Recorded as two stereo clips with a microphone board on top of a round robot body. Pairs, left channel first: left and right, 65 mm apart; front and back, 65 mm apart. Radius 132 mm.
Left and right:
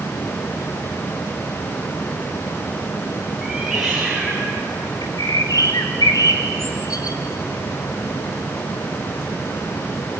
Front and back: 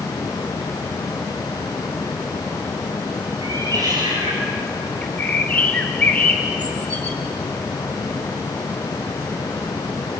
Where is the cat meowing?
Straight behind, 5.5 m; by 4.9 s 175° left, 3.5 m.